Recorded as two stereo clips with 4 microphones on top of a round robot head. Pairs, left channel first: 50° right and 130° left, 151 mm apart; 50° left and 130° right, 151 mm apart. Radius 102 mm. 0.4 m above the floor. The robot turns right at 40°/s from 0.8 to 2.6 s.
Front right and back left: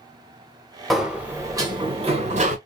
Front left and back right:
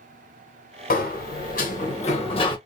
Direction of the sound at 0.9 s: 40° left.